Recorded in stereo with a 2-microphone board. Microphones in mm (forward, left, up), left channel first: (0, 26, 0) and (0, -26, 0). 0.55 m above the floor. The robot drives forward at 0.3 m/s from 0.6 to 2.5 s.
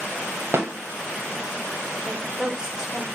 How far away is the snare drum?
About 0.6 m.